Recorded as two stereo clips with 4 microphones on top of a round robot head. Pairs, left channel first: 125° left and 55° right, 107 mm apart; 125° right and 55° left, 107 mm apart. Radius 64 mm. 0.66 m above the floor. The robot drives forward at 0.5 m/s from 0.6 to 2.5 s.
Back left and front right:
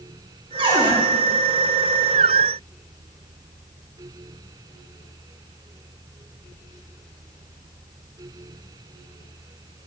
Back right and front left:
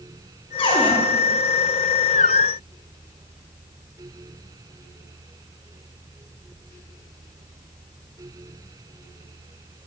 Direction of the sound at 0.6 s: 90° right.